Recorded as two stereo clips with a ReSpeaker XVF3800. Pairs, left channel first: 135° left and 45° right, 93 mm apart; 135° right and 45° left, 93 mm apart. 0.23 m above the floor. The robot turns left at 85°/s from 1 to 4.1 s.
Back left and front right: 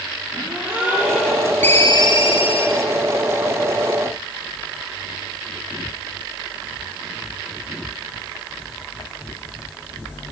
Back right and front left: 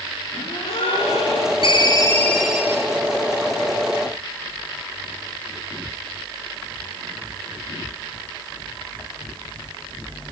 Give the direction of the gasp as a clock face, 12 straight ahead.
4 o'clock.